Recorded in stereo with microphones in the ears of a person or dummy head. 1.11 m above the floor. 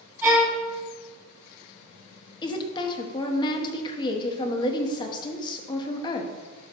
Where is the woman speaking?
25° left (ahead or behind), 1.3 m.